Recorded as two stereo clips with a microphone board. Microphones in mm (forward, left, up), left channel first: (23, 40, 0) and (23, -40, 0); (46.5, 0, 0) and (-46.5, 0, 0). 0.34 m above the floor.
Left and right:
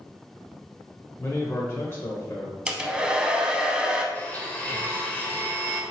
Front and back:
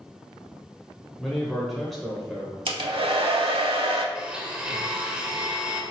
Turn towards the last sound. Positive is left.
turn(degrees=120)